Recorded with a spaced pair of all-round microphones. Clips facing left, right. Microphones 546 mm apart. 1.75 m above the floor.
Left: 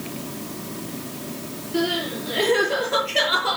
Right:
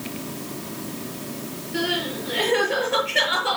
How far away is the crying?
About 7.5 m.